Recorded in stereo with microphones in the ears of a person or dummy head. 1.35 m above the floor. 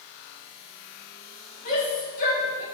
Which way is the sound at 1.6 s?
45° left (ahead or behind).